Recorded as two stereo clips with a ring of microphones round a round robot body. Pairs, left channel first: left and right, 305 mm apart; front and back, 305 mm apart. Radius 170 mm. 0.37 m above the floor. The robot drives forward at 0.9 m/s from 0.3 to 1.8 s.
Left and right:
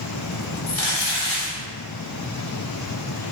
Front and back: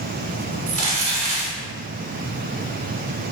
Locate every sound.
0.7 s crumpling: 135° left, 1.3 m; by 1.6 s 150° left, 2.0 m